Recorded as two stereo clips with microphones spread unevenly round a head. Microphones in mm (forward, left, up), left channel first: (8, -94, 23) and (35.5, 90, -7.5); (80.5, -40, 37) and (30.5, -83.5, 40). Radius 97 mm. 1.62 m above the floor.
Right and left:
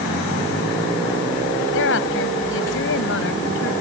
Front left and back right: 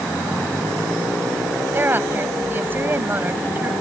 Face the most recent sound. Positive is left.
turn(degrees=-80)